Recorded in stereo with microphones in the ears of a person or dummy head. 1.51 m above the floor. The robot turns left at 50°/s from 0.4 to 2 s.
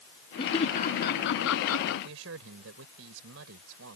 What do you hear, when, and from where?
0.4 s laughter: 25° left (ahead or behind); by 1.9 s 80° left
2.0 s a man speaking: 85° right